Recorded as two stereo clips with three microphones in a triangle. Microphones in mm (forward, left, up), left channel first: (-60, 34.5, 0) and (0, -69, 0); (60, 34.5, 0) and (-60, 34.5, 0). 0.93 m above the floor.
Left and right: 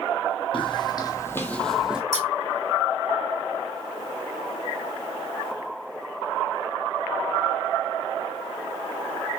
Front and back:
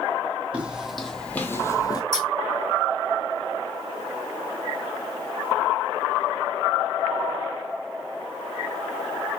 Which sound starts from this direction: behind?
Scissors, at 2.1 s.